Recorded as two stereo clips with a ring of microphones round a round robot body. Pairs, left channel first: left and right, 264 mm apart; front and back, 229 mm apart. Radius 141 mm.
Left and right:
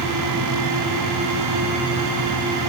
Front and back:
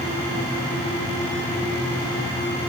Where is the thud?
No thud in this recording.